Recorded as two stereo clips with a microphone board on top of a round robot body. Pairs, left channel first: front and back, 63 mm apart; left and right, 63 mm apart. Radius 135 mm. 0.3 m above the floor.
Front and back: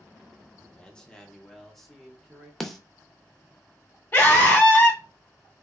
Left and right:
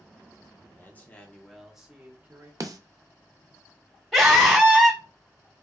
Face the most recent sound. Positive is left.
turn(degrees=0)